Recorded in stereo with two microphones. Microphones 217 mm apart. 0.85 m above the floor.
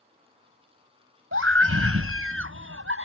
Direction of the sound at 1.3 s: 80° right.